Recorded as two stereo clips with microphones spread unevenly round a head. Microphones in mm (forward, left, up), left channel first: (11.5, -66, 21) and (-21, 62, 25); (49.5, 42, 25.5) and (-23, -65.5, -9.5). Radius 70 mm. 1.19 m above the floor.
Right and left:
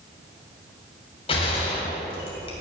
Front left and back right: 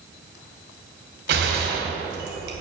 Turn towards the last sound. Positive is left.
turn(degrees=-125)